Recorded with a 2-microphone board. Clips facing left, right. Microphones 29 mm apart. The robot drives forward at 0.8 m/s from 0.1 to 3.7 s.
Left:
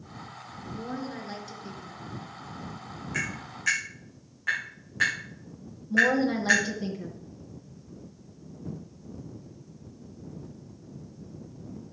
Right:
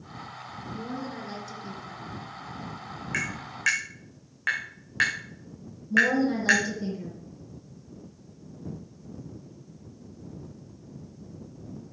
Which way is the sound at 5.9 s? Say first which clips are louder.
Even; 25° left (ahead or behind).